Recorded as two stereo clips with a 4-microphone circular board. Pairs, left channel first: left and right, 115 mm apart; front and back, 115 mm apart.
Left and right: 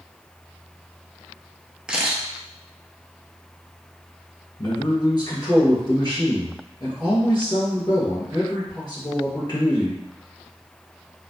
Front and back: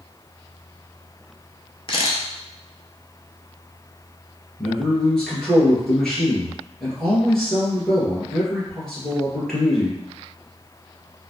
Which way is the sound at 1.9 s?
10° right.